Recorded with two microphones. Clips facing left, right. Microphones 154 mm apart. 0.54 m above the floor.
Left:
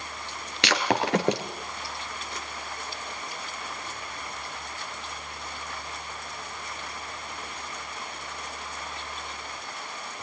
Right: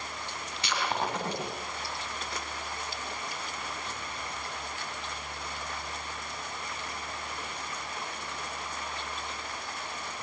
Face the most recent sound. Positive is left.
turn(degrees=80)